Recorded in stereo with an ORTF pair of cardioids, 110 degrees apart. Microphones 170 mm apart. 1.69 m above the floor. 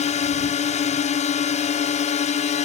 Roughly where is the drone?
Ahead left.